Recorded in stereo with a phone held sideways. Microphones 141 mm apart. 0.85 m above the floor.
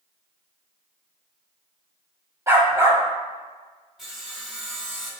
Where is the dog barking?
20° right (ahead or behind), 1.2 m.